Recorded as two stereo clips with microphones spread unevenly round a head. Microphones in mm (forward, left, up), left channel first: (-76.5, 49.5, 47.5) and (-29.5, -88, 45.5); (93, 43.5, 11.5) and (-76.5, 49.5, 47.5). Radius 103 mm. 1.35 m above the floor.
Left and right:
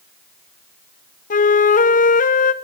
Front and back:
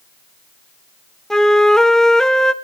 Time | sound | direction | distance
1.3 | a flute | 80° left | 1.0 m